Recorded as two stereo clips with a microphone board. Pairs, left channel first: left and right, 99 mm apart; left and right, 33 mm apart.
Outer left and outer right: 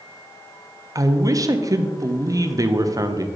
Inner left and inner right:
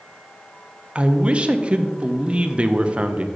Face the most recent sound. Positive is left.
turn(degrees=-35)  # may be behind; listen again after turning